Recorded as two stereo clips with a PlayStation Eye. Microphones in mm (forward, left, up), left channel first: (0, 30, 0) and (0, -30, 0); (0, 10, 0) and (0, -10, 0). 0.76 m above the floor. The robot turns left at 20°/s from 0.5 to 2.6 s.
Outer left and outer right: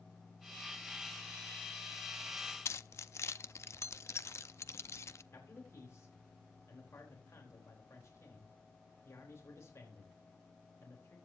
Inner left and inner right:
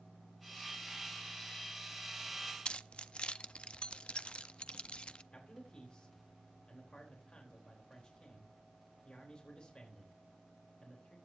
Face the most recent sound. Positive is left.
turn(degrees=55)  # may be behind; listen again after turning